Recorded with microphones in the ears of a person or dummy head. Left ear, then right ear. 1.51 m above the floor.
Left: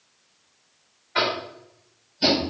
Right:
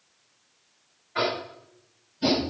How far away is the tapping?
About 5 m.